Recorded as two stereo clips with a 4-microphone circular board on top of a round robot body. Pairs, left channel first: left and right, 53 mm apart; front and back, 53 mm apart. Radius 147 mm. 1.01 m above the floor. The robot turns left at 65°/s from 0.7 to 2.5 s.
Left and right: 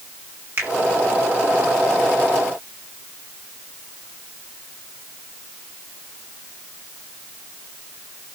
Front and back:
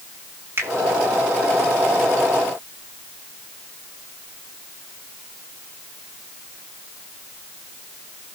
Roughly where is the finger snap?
Behind right.